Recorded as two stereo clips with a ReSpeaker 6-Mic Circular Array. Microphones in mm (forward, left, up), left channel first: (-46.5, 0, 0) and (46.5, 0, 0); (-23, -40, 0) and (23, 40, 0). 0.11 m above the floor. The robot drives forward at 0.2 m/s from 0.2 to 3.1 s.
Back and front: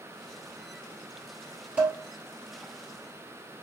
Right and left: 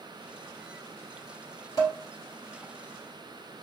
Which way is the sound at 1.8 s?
75° right.